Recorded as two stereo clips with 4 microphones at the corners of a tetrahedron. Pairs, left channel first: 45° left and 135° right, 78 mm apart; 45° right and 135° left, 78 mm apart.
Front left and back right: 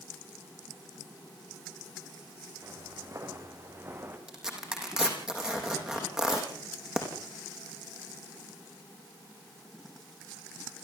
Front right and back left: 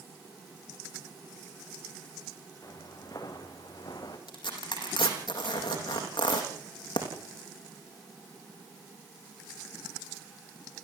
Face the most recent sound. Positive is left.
turn(degrees=-50)